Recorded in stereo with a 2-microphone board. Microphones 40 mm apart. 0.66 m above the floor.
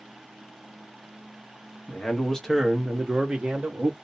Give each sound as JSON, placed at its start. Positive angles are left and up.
{"t": 1.9, "sound": "a man speaking", "side_deg": 30, "distance_m": 0.8}